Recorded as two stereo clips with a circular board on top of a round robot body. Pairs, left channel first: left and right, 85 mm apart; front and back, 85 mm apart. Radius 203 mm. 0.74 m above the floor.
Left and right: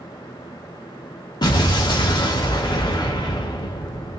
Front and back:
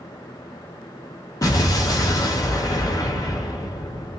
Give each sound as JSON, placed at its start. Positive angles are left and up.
{"t": 1.4, "sound": "an explosion", "azimuth_deg": 50, "distance_m": 1.0}